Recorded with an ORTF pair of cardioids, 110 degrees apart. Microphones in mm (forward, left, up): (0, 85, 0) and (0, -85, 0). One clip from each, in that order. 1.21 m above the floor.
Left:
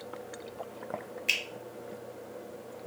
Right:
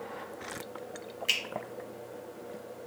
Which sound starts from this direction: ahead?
A finger snap, at 1.3 s.